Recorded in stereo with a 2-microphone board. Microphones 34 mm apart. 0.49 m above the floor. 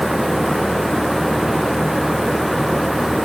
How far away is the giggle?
No giggle in this recording.